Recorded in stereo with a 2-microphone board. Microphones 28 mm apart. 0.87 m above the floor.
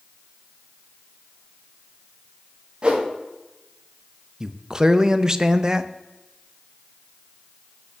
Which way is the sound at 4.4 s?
20° right (ahead or behind).